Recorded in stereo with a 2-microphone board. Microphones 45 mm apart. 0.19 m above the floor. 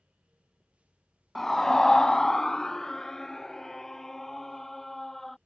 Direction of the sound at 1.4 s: 5° left (ahead or behind).